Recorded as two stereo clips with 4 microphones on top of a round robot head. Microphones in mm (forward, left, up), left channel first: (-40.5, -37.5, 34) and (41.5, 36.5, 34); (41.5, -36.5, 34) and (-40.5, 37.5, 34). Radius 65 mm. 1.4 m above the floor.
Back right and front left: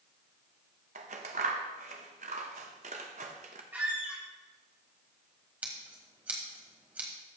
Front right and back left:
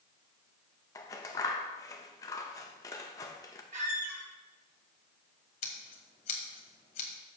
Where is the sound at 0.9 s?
20° left, 0.8 m.